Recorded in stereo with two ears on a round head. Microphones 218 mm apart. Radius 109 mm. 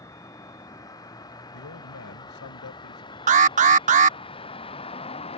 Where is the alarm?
30° right (ahead or behind).